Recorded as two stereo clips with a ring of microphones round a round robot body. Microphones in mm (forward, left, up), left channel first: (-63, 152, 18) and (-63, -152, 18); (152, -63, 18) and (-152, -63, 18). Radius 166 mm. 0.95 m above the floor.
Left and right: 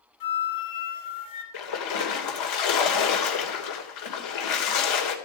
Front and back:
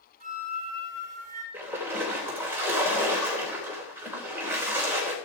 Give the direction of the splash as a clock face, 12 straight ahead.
9 o'clock.